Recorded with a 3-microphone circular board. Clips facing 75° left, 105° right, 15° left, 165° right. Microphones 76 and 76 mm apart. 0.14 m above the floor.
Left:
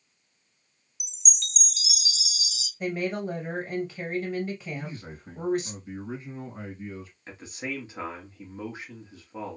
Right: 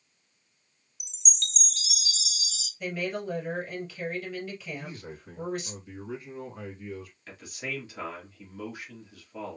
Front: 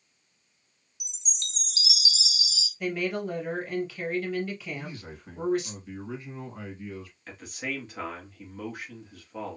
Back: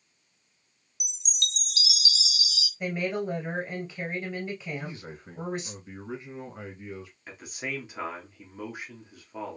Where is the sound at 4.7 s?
125° left, 2.5 m.